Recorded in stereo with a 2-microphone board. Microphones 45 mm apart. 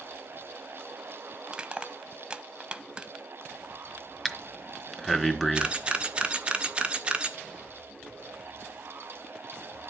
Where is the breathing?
5° left (ahead or behind), 1.3 m.